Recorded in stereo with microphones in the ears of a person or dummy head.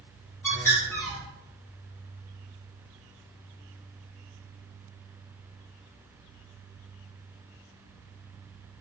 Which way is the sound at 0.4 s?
15° left (ahead or behind).